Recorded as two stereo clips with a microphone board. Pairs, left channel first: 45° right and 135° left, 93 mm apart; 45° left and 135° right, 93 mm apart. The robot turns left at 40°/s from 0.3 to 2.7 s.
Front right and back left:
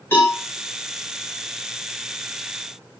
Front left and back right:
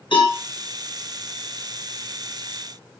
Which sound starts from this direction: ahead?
A cowbell, at 0.1 s.